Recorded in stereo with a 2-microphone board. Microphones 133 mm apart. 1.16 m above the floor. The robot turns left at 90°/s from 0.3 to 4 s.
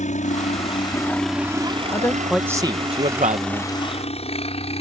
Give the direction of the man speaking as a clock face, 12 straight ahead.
11 o'clock.